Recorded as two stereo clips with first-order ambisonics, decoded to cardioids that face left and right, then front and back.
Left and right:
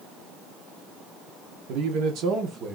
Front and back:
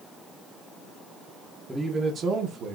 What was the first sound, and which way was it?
A man speaking, 100° right.